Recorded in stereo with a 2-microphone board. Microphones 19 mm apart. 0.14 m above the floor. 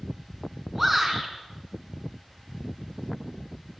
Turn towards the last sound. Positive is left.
turn(degrees=-5)  # may be behind; listen again after turning